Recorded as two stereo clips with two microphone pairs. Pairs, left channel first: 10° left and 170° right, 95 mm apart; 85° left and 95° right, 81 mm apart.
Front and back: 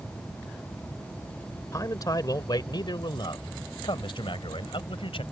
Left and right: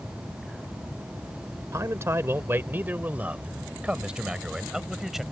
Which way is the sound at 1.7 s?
45° right.